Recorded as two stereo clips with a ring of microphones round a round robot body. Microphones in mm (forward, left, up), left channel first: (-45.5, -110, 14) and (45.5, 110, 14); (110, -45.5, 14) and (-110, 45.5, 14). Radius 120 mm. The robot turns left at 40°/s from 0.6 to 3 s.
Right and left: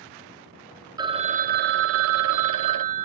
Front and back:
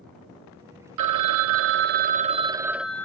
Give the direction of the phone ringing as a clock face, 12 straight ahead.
7 o'clock.